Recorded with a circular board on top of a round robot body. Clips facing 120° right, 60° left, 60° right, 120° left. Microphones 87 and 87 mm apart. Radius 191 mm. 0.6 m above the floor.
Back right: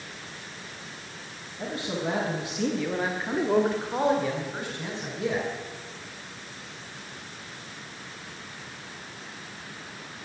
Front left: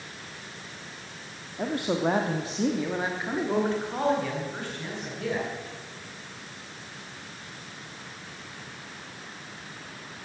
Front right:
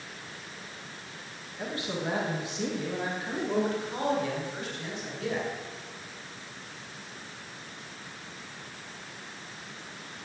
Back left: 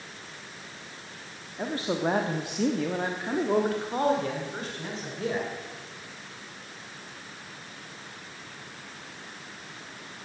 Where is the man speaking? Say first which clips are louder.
Front left 5 dB, back left 5 dB; 65° left, 1.3 m; by 5.5 s 175° left, 3 m.